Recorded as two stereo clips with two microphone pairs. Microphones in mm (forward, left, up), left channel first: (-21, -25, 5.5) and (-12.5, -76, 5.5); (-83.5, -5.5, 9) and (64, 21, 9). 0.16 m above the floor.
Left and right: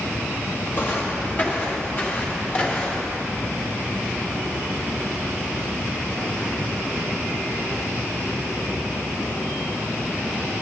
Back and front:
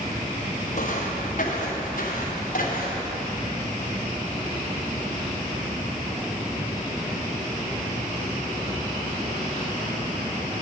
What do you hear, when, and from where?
0.7 s footsteps: 155° left, 2.5 m; by 3.2 s 160° left, 4 m